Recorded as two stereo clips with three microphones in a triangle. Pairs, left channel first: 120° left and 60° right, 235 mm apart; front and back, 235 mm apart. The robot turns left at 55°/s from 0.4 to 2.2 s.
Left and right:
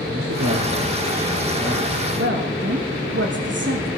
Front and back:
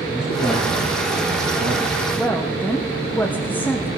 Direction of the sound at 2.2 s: 80° right.